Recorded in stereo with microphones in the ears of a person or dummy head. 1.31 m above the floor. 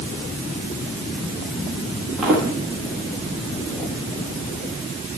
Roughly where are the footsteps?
Centre.